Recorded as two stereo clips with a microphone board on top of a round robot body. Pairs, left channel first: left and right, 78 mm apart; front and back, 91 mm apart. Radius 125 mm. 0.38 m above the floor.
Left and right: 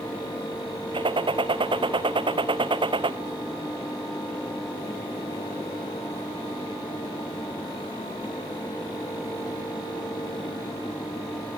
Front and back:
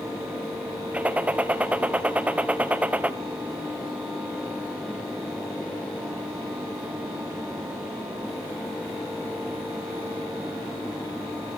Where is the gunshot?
105° right, 0.8 m.